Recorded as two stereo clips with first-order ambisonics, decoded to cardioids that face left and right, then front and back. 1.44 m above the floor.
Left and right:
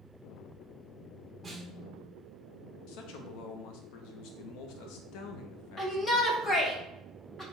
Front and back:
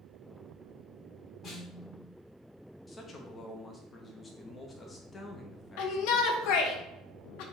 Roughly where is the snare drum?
Ahead.